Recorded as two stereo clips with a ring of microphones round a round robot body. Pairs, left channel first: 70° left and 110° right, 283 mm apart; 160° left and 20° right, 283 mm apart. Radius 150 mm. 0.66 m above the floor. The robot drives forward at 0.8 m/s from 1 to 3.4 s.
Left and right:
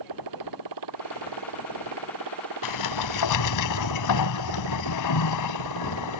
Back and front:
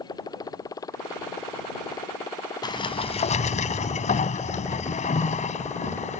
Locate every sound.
0.0 s a motorcycle: 125° right; by 6.2 s 120° right
2.6 s a sliding door: 80° left; by 6.2 s 90° left